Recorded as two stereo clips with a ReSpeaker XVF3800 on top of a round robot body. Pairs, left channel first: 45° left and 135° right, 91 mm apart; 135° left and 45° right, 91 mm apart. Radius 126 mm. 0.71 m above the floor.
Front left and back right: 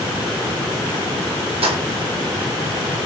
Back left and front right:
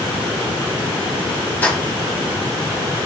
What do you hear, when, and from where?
1.6 s keys jangling: 155° right, 1.4 m